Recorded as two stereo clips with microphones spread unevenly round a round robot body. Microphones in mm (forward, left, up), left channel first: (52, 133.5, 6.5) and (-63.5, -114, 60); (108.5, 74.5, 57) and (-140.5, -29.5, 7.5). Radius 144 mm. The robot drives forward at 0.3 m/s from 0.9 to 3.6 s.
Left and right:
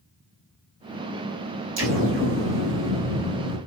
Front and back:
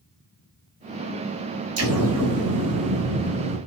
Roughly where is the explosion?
Behind.